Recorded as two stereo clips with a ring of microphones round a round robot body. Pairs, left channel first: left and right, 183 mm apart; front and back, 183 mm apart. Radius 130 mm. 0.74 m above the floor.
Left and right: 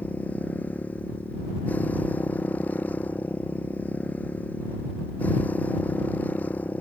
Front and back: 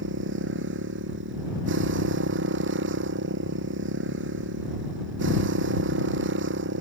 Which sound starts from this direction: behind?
A motorcycle, at 0.0 s.